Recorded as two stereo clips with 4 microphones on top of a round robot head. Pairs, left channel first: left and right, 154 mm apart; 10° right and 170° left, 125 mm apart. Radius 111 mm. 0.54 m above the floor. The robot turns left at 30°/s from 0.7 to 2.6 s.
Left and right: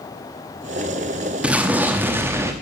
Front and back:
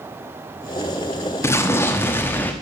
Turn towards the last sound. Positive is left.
turn(degrees=-55)